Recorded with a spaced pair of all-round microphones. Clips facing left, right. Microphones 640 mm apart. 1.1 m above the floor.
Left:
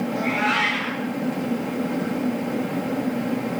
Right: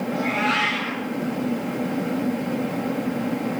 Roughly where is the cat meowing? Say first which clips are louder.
Even; right.